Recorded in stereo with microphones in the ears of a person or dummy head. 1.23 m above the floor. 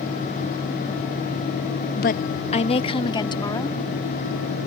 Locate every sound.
1.9 s a woman speaking: 55° left (ahead or behind); by 3.8 s 20° left (ahead or behind)